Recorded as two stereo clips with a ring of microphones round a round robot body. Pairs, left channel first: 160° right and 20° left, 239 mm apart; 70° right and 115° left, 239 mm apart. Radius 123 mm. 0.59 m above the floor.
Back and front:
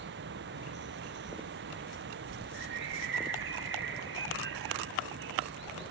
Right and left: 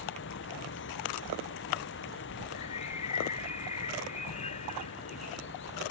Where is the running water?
25° right.